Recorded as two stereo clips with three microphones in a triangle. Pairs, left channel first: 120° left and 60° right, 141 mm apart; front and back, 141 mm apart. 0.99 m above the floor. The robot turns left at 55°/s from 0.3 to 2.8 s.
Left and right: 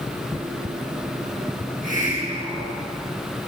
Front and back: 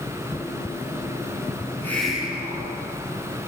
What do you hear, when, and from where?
1.6 s a hiss: 65° right, 8.5 m; by 2.8 s 130° right, 8.5 m